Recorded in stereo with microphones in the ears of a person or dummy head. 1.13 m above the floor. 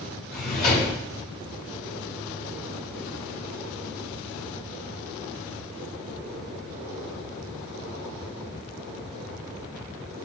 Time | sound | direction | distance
0.3 | a drawer | 45° left (ahead or behind) | 1.0 m